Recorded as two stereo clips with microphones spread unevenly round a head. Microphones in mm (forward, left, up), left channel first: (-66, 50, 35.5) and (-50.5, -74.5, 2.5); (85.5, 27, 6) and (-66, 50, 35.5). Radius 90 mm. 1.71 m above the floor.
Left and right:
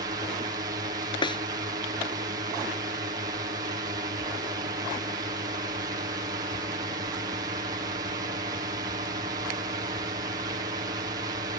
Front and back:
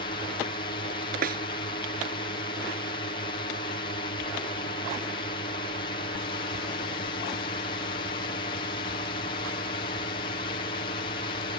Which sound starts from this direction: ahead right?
A drone, at 0.0 s.